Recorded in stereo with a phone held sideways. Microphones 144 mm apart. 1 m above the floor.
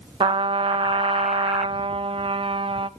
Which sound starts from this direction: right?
A trumpet, at 0.2 s.